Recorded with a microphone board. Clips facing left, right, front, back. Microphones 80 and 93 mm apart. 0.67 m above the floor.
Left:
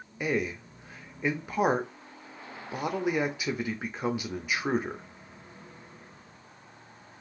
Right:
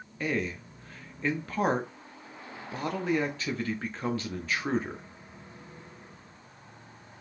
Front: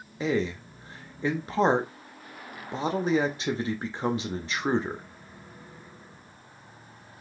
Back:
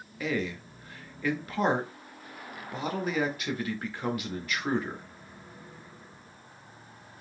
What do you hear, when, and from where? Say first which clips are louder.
0.2 s a man speaking: left 2 dB, front 4 dB; 30° left, 0.6 m